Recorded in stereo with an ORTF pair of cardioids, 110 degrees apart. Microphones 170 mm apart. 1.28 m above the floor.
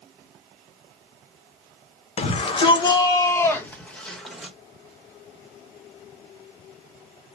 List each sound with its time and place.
2.2 s a shout: 40° left, 1.6 m; by 4.5 s straight ahead, 2.0 m